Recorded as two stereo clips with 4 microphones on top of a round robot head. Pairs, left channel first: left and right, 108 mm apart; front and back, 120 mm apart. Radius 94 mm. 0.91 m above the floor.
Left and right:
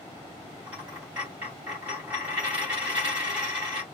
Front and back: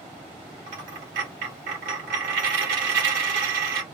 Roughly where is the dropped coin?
Behind.